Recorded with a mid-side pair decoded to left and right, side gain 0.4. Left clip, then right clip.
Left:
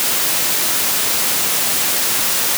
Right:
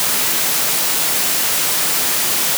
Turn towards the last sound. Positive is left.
No sound to turn to.